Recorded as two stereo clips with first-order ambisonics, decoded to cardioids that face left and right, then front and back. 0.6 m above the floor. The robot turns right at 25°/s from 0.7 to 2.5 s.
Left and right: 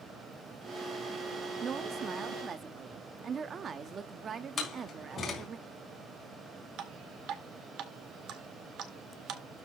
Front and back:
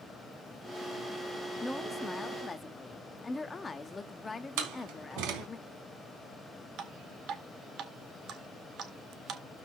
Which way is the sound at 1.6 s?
85° right.